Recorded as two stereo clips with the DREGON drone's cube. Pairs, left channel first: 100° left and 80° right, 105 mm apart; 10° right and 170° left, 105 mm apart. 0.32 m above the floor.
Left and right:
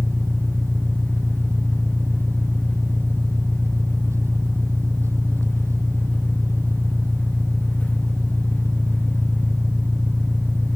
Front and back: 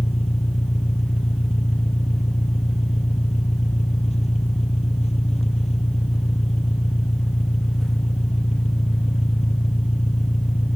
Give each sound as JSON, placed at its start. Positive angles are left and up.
{"t": 0.0, "sound": "an engine running", "azimuth_deg": -15}